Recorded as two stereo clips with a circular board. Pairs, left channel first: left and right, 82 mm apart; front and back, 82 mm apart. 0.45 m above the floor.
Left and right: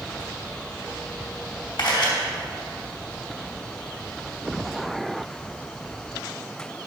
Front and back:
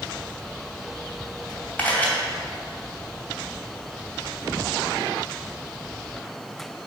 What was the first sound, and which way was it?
A camera shutter, 65° left.